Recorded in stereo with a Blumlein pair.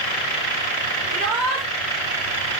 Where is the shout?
15° right, 4.5 m.